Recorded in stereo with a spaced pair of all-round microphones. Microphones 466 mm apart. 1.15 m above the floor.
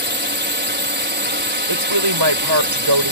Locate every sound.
0.0 s a drone: 20° right (ahead or behind)
1.7 s a woman speaking: 60° right (ahead or behind)